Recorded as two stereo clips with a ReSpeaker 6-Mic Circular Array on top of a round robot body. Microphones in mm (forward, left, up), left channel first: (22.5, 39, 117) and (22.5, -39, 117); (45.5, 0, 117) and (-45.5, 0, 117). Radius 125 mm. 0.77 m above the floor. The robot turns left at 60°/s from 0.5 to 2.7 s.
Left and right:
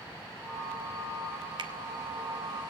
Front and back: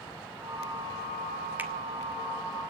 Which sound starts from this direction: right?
A finger snap, at 1.6 s.